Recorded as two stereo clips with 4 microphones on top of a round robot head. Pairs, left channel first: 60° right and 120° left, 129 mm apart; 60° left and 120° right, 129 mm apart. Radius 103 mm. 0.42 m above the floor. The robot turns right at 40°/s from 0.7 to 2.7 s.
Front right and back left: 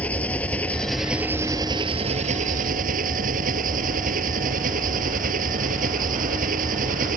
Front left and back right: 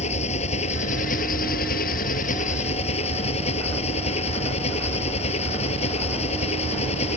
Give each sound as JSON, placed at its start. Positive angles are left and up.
{"t": 0.0, "sound": "an engine running", "azimuth_deg": 20}